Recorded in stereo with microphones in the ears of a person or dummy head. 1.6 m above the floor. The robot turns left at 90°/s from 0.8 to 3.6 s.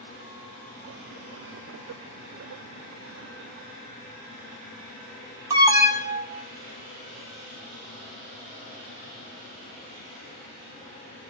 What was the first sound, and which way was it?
An alarm, 15° right (ahead or behind).